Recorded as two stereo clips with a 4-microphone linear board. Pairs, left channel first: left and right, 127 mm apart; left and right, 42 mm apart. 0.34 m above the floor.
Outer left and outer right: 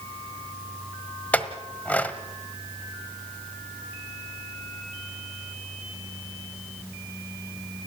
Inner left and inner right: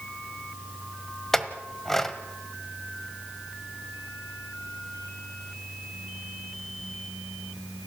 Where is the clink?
10° left (ahead or behind), 1.3 m.